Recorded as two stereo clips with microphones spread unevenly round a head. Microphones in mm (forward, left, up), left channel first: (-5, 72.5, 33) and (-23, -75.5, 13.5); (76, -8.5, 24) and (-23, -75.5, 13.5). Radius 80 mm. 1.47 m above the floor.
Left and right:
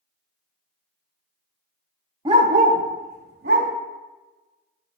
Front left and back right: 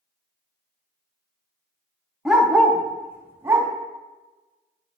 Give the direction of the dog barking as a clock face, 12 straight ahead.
2 o'clock.